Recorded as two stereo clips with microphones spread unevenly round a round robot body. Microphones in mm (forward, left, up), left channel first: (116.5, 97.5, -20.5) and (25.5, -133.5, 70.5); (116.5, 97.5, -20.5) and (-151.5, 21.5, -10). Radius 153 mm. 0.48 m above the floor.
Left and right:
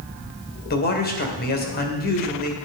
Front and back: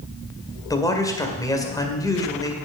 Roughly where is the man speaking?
Left.